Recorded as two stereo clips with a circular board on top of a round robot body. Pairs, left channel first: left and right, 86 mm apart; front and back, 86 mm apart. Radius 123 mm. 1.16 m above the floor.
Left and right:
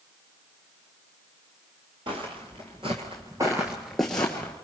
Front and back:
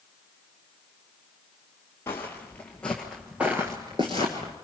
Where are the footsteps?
65° right, 1.5 m; by 4.5 s 155° left, 1.3 m.